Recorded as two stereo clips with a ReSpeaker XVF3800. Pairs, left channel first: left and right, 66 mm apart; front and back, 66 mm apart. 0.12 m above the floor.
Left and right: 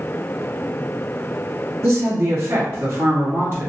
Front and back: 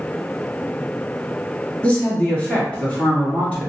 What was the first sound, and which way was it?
A woman speaking, 65° right.